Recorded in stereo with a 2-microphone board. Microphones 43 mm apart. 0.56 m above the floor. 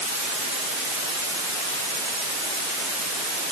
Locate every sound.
Only background noise.